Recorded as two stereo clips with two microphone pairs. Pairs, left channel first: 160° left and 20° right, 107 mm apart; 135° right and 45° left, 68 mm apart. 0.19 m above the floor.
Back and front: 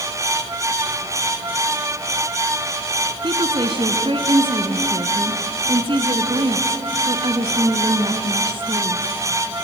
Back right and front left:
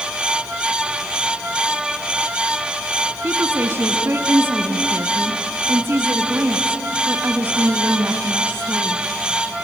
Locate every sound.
3.2 s a woman speaking: straight ahead, 1.8 m